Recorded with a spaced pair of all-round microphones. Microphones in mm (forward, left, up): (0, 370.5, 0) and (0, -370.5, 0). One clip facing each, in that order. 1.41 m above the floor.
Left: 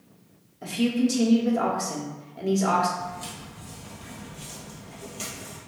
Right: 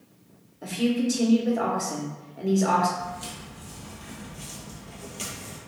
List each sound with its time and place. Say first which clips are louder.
0.6 s a woman speaking: left 1 dB; 35° left (ahead or behind), 0.9 m
3.0 s footsteps: even; 15° right (ahead or behind), 1.9 m; by 5.6 s 25° right (ahead or behind), 1.5 m